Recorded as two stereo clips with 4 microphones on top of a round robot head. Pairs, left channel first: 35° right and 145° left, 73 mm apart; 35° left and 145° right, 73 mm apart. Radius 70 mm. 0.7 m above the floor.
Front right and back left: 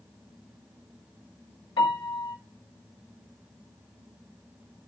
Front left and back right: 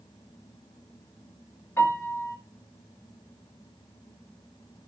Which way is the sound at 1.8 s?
20° right.